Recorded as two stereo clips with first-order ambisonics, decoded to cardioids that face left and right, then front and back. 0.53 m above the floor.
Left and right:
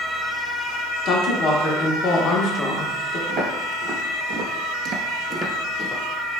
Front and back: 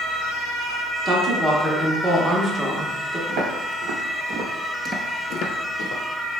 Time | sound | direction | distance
1.1 | a woman speaking | 115° left | 0.8 m
3.3 | footsteps | 150° right | 1.9 m